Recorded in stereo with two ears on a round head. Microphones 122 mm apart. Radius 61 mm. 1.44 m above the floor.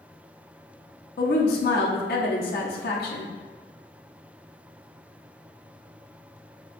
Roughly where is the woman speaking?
Left.